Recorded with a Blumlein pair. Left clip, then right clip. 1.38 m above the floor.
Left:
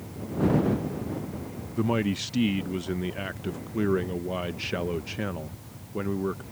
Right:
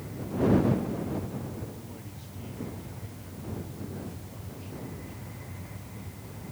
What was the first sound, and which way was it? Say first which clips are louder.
A man speaking: left 19 dB; 50° left.